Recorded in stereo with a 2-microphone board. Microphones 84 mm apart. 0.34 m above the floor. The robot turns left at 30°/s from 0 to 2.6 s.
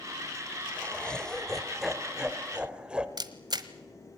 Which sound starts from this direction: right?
A camera shutter, at 3.2 s.